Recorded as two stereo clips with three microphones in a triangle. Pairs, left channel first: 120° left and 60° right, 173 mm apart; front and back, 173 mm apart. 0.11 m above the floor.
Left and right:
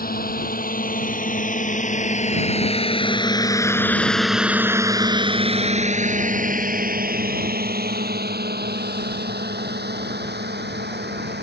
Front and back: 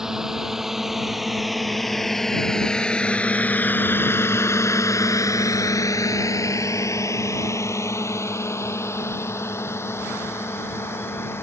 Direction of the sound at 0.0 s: 95° left.